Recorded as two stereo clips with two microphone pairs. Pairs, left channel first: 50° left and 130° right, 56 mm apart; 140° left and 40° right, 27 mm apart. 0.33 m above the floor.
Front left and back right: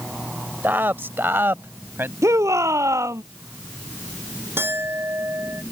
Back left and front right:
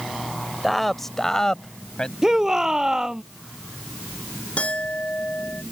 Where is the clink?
175° right.